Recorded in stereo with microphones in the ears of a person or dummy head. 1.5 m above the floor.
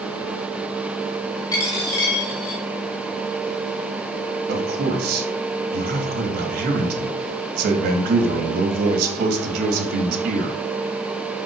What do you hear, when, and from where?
1.5 s a dropped coin: 20° left (ahead or behind), 3 m
4.5 s a man speaking: 60° right (ahead or behind), 3 m